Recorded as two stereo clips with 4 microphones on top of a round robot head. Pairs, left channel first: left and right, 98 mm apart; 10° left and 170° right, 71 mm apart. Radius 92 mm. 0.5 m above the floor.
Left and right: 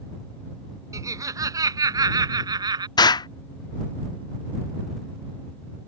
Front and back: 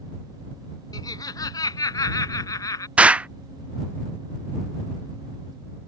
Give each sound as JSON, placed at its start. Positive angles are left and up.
{"t": 0.9, "sound": "laughter", "azimuth_deg": -35}
{"t": 3.0, "sound": "an explosion", "azimuth_deg": 120}